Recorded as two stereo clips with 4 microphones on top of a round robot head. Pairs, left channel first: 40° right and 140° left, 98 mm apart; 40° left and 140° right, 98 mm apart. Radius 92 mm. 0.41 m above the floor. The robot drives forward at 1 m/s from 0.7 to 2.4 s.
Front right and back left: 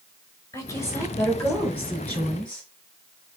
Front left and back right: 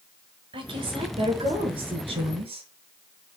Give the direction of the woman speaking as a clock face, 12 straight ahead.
3 o'clock.